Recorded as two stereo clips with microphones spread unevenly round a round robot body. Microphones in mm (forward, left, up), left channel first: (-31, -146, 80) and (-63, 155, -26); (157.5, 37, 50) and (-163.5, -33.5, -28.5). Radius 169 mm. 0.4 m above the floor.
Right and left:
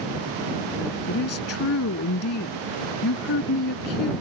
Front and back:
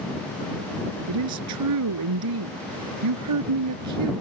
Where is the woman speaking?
130° right.